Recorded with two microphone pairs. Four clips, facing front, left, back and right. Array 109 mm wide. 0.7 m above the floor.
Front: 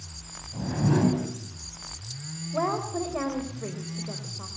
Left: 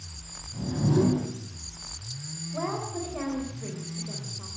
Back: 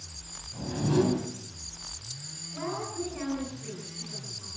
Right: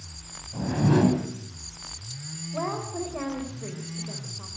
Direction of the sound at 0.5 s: 75° right.